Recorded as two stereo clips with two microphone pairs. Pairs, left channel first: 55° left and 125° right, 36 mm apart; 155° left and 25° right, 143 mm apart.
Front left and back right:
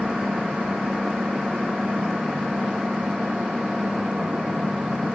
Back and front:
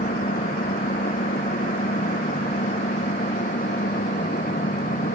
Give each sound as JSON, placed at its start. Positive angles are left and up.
{"t": 0.0, "sound": "an engine running", "azimuth_deg": 160}